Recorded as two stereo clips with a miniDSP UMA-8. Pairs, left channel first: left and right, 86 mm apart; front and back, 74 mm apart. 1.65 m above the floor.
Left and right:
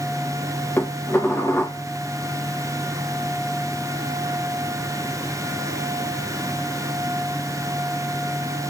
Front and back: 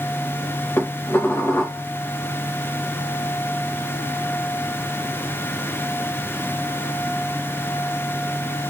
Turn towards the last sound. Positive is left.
turn(degrees=35)